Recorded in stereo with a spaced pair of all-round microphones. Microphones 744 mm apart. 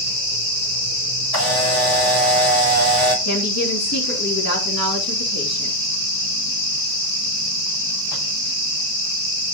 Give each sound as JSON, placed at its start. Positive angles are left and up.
{"t": 1.3, "sound": "a camera shutter", "side_deg": 30, "distance_m": 7.5}
{"t": 3.2, "sound": "a woman speaking", "side_deg": 20, "distance_m": 3.5}